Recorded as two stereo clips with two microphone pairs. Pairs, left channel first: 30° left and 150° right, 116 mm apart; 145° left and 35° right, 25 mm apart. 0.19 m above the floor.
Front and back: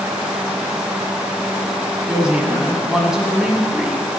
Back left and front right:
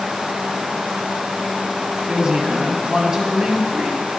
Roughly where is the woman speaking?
Right.